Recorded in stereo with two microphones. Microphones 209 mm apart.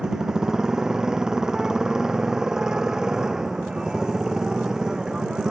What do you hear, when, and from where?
0.0 s a motorcycle: 5° right (ahead or behind)